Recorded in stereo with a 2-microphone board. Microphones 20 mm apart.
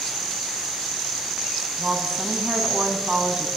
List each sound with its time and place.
1.8 s a woman speaking: 35° right (ahead or behind), 3.5 m